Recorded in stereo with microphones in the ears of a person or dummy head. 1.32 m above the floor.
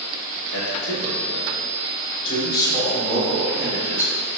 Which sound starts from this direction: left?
A man speaking, at 0.5 s.